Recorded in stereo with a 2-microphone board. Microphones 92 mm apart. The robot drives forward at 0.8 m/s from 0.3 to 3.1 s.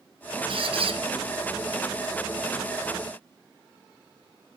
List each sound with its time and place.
0.5 s a squeak: 65° right (ahead or behind), 1.1 m; by 1.0 s 85° right, 1.0 m